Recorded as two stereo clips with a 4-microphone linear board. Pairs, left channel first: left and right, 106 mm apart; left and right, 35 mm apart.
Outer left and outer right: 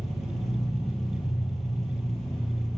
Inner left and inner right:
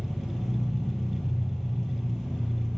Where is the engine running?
5° left (ahead or behind), 1.3 m.